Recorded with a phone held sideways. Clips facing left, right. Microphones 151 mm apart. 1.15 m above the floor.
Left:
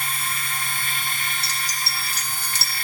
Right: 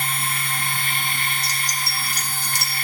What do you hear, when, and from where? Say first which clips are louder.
0.0 s a machine running: right 3 dB; 65° right (ahead or behind), 2 m
1.4 s keys jangling: right 2 dB; 15° right (ahead or behind), 0.9 m